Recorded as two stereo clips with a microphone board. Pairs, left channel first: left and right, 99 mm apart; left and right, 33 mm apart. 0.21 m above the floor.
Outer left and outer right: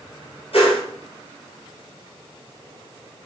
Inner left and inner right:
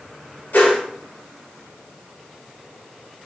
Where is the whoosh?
75° left (ahead or behind), 2.5 m.